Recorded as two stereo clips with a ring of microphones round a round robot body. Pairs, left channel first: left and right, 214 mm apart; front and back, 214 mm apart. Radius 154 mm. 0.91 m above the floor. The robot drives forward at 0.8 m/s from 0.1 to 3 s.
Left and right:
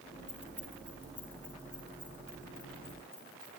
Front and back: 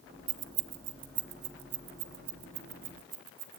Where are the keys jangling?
175° left, 1.3 m; by 3.6 s straight behind, 3.5 m.